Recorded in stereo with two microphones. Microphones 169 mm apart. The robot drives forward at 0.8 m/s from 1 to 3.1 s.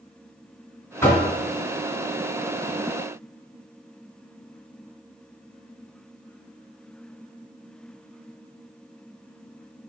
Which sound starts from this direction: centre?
Knocking, at 1.0 s.